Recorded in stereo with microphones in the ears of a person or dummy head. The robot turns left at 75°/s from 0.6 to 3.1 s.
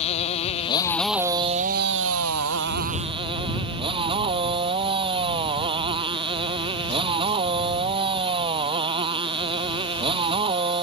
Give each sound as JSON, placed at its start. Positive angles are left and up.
{"t": 0.0, "sound": "a motorcycle", "azimuth_deg": 35}